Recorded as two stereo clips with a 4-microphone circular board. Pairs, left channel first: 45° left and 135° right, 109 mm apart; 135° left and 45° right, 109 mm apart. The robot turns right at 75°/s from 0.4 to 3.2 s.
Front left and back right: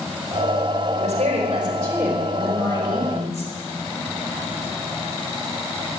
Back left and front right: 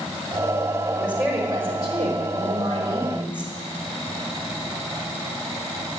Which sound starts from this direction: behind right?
A woman speaking, at 0.9 s.